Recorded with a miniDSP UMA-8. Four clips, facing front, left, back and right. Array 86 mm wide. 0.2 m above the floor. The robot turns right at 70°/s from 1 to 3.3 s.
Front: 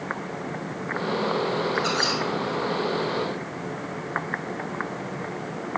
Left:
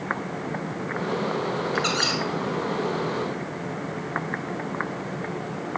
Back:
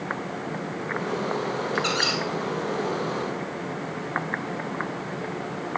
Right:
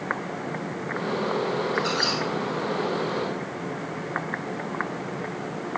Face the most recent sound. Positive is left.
turn(degrees=-130)